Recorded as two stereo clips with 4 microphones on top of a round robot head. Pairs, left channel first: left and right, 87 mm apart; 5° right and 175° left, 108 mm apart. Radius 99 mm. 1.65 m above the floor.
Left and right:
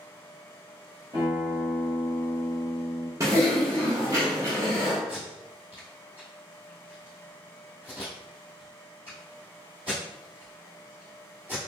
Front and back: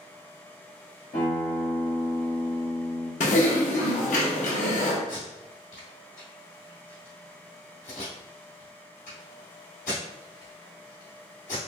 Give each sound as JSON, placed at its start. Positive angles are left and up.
{"t": 1.1, "sound": "a guitar", "azimuth_deg": -35, "distance_m": 1.2}
{"t": 3.2, "sound": "typing on a keyboard", "azimuth_deg": -25, "distance_m": 0.6}
{"t": 5.1, "sound": "tape being pulled", "azimuth_deg": -40, "distance_m": 1.5}